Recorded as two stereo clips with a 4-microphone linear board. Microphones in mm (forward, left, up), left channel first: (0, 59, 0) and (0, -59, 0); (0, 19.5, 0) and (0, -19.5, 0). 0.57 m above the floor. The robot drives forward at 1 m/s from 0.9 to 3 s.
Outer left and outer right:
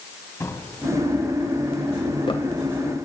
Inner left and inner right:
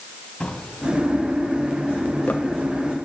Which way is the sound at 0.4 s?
25° left (ahead or behind).